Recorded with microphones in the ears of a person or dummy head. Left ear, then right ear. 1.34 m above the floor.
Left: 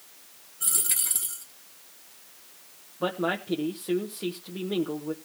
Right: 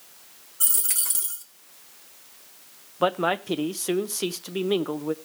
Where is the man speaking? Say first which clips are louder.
Right 5 dB; 60° right (ahead or behind), 0.9 m.